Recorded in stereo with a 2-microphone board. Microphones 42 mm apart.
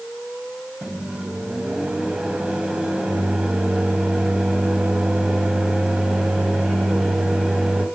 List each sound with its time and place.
0.8 s a microwave: 20° right (ahead or behind), 1.5 m